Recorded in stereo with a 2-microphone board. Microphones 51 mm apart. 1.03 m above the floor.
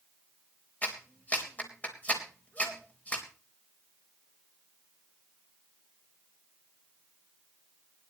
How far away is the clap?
About 4 m.